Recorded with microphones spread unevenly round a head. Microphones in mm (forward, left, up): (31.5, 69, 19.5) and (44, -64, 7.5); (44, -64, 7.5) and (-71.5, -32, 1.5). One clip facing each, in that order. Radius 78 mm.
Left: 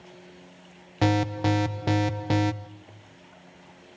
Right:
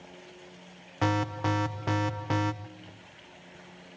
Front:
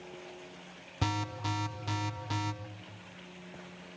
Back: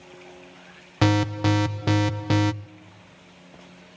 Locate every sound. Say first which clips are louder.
1.0 s an alarm: left 5 dB, back 13 dB; 155° left, 0.6 m